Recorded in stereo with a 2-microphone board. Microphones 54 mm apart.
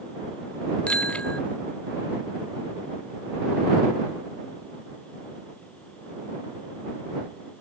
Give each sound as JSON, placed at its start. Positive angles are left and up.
{"t": 0.9, "sound": "a bicycle bell", "side_deg": 20}